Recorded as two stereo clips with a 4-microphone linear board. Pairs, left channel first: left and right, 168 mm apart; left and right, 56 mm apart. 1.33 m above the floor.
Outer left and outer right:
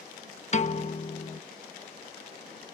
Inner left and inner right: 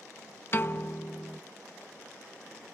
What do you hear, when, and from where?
0.5 s a piano: 45° left (ahead or behind)